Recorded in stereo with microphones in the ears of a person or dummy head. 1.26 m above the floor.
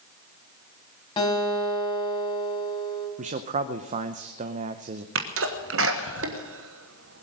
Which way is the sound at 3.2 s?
35° right (ahead or behind).